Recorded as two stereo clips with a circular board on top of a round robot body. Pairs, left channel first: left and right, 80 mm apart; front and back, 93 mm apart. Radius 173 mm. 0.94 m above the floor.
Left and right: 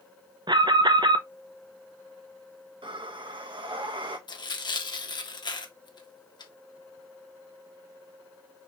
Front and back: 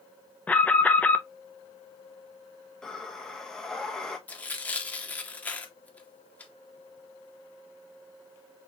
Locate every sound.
0.5 s an alarm: 75° right, 0.9 m
2.8 s breathing: 85° right, 1.4 m
4.3 s tearing paper: 70° left, 1.5 m